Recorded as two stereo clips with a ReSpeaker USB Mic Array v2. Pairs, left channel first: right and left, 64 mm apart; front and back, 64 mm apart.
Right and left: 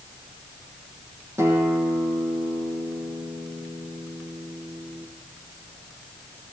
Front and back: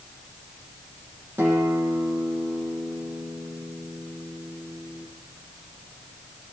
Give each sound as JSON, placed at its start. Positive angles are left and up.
{"t": 1.4, "sound": "a guitar", "azimuth_deg": 130, "distance_m": 7.5}